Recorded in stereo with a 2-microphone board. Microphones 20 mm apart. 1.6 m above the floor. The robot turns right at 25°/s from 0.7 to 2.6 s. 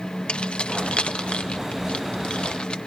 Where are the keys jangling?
65° left (ahead or behind), 1.5 m; by 2.8 s 55° left (ahead or behind), 1.5 m.